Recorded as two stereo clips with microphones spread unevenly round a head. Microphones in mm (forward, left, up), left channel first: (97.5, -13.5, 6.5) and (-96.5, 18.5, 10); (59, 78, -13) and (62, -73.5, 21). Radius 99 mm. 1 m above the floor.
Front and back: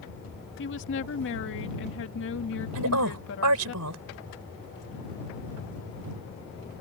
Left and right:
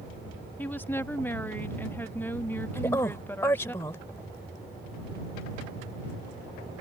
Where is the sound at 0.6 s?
15° left.